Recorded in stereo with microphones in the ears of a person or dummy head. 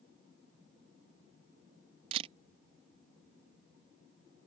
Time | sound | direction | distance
2.1 | a camera shutter | 25° right (ahead or behind) | ?